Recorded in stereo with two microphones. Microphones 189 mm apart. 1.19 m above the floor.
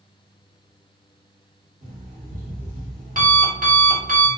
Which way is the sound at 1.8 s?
45° right (ahead or behind).